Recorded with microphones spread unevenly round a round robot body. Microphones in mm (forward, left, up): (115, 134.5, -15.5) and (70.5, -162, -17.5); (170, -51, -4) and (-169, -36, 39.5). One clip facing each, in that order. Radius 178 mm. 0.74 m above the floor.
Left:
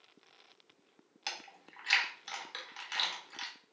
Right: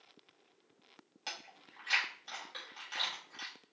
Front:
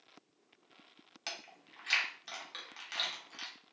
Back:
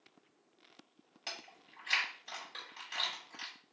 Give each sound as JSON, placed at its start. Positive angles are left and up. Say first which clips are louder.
{"t": 1.3, "sound": "chewing", "louder": "left 3 dB, even", "azimuth_deg": 45, "distance_m": 1.5}